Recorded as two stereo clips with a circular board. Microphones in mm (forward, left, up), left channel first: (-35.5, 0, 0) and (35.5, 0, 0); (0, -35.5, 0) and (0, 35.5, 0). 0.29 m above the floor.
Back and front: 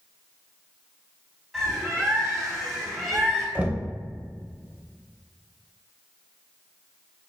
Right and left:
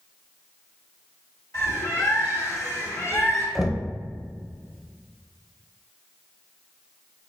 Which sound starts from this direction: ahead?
Knocking, at 3.5 s.